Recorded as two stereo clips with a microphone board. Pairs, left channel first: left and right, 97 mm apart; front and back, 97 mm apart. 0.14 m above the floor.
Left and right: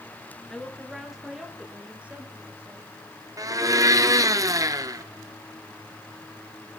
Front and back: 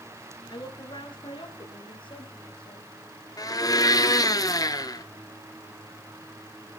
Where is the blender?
40° right, 0.9 m.